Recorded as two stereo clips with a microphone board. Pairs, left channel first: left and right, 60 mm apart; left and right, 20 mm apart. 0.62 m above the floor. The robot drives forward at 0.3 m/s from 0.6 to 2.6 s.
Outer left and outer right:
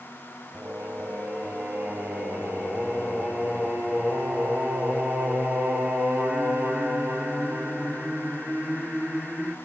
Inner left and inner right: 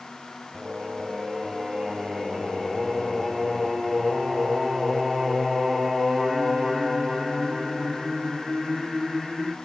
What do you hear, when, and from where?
0.5 s singing: 30° right (ahead or behind), 1.0 m; by 9.6 s 20° right (ahead or behind), 1.4 m